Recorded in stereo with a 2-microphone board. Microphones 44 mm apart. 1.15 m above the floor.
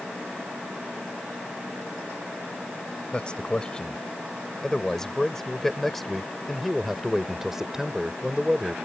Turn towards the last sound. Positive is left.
turn(degrees=-20)  # may be behind; listen again after turning